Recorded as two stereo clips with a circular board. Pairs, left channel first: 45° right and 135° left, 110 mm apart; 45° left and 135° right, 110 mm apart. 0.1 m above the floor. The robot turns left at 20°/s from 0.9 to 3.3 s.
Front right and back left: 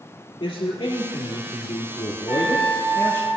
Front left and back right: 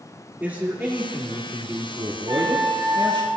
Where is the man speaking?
65° right, 3 m; by 3.3 s 110° right, 3 m.